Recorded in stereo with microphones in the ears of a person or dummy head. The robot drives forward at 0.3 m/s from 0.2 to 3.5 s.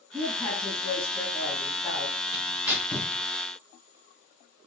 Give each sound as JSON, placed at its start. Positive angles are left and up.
{"t": 0.1, "sound": "a woman speaking", "side_deg": 10, "distance_m": 6.0}
{"t": 2.3, "sound": "tearing paper", "side_deg": 20, "distance_m": 6.0}